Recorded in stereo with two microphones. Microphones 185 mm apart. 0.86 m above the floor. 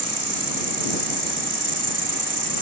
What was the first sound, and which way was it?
An insect, 75° right (ahead or behind).